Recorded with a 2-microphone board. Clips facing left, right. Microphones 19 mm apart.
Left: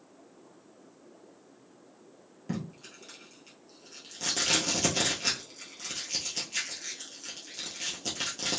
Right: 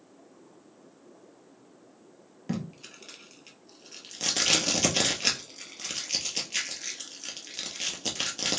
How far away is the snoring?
No snoring in this recording.